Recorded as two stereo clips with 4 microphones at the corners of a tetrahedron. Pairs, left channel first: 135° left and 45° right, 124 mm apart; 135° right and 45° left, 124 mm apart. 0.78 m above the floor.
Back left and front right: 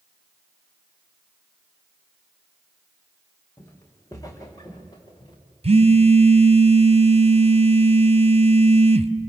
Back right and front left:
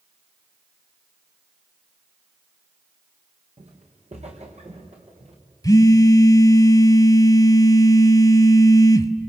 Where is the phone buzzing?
75° right, 0.9 m.